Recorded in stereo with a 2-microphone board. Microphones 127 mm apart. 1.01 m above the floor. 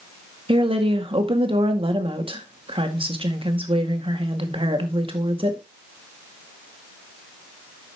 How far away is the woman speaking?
About 1.9 m.